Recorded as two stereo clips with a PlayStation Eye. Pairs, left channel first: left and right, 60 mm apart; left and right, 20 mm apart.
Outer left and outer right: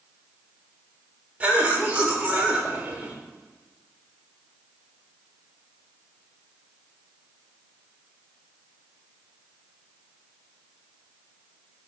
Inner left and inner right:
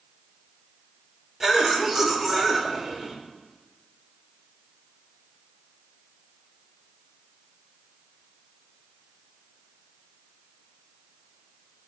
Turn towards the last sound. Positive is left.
turn(degrees=-25)  # may be behind; listen again after turning